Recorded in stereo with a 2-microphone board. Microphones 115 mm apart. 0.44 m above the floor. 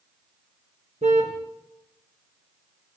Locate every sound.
1.0 s a car horn: 80° right, 4 m